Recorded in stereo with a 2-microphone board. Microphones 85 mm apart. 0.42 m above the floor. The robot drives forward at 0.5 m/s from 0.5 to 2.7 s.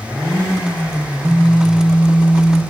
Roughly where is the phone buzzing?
Left.